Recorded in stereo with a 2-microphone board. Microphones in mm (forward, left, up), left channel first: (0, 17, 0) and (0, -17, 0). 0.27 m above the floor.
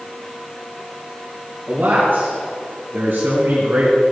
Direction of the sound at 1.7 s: 65° right (ahead or behind).